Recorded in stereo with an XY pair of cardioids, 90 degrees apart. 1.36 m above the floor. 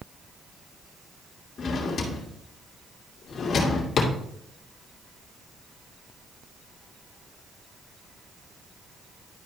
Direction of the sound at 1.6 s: 60° left.